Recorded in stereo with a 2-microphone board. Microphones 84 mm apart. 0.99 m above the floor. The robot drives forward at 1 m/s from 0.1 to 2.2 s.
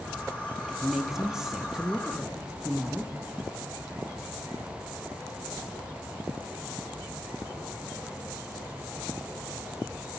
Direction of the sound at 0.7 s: 5° right (ahead or behind).